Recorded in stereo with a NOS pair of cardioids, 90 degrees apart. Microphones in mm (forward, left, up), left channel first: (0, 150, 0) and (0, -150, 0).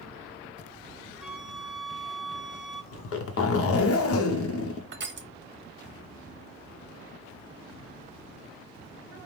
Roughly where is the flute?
Ahead.